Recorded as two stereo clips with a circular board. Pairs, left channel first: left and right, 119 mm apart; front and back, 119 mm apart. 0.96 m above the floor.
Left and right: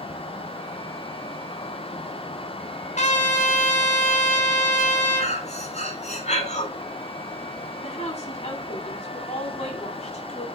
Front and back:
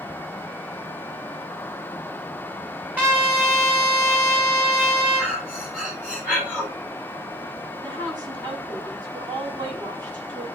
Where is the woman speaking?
120° left, 9 m.